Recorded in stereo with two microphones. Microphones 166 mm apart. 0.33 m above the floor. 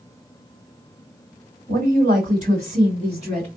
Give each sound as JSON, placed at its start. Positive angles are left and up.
{"t": 1.7, "sound": "a woman speaking", "side_deg": -55, "distance_m": 2.5}